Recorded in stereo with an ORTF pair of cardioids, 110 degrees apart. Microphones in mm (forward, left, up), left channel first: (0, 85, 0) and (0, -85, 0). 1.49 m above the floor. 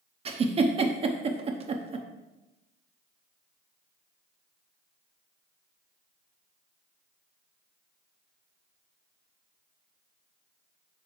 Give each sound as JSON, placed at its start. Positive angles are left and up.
{"t": 0.2, "sound": "a giggle", "azimuth_deg": -35, "distance_m": 0.8}